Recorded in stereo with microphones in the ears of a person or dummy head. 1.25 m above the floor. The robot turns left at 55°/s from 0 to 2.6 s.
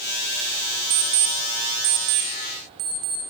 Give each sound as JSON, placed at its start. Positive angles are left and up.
{"t": 0.9, "sound": "an alarm clock", "side_deg": -25, "distance_m": 0.8}